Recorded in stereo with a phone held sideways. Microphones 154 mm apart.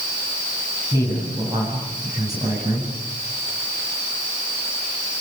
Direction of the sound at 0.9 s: 25° right (ahead or behind).